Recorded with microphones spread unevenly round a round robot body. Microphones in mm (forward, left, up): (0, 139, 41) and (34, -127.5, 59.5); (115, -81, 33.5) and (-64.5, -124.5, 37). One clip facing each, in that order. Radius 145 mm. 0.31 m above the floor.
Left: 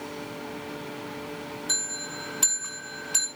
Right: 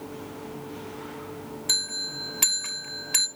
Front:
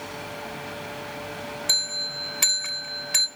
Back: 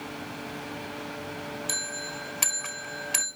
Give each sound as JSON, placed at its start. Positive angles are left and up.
{"t": 1.7, "sound": "a bell", "azimuth_deg": -60, "distance_m": 1.8}